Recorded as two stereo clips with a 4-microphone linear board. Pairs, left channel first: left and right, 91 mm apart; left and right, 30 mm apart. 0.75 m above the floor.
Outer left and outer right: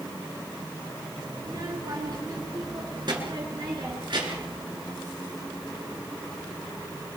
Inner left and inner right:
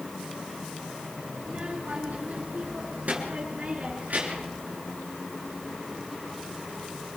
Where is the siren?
I don't hear a siren.